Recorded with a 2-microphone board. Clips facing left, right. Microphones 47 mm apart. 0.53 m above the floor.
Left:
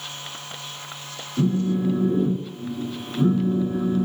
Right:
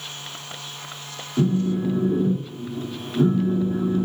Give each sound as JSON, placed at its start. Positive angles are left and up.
{"t": 1.4, "sound": "a phone buzzing", "side_deg": -25, "distance_m": 1.0}